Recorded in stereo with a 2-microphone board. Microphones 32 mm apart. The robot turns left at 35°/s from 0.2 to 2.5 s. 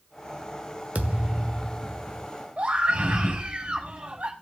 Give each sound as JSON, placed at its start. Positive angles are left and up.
{"t": 0.9, "sound": "a thud", "azimuth_deg": -135, "distance_m": 1.3}
{"t": 2.6, "sound": "a scream", "side_deg": -35, "distance_m": 4.5}